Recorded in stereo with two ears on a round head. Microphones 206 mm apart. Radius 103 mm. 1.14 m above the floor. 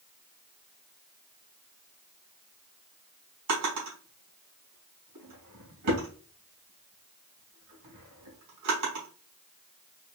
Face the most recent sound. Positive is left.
turn(degrees=-80)